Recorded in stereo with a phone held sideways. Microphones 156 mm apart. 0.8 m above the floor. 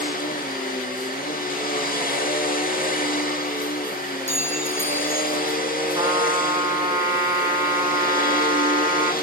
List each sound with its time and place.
0.0 s a machine running: 75° left (ahead or behind), 1.2 m
4.3 s a clink: 50° right (ahead or behind), 0.7 m
6.0 s a trumpet: 20° right (ahead or behind), 4 m